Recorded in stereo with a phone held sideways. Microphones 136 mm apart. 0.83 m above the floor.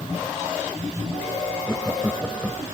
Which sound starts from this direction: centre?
Laughter, at 1.7 s.